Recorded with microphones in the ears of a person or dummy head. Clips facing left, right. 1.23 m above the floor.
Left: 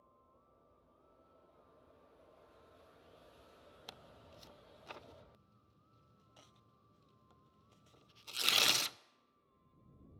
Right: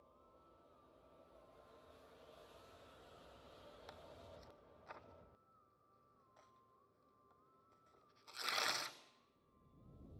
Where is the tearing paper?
35° left (ahead or behind), 0.6 m.